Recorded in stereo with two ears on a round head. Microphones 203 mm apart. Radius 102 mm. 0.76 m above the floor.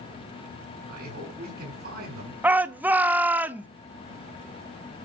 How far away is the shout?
About 0.9 m.